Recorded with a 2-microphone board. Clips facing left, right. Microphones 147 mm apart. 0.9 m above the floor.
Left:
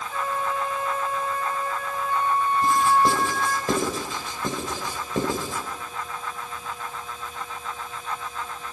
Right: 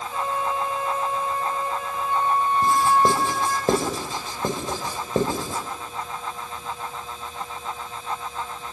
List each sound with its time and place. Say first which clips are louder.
0.1 s a flute: right 1 dB; 20° right (ahead or behind), 2.5 m
2.6 s writing: right 1 dB; 35° right (ahead or behind), 4.5 m